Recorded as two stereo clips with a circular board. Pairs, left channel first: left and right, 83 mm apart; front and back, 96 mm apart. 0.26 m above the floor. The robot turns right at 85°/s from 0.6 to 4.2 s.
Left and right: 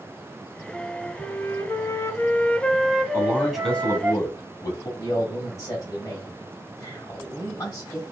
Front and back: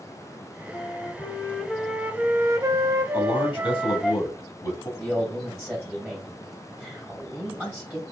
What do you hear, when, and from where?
0.7 s a flute: straight ahead, 0.6 m; by 4.1 s 75° right, 0.6 m
3.1 s a man speaking: 40° right, 1.6 m; by 4.9 s 55° left, 1.6 m
5.0 s a man speaking: 100° left, 1.6 m